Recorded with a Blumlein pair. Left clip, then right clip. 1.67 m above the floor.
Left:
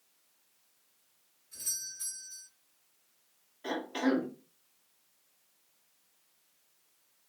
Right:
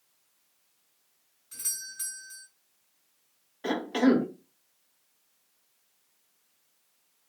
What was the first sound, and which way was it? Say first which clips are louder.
A doorbell: right 2 dB; 45° right.